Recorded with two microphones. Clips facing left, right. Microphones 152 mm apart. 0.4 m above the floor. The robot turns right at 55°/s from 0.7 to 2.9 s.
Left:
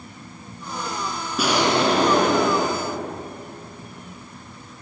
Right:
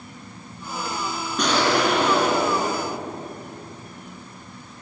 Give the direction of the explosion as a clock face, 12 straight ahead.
12 o'clock.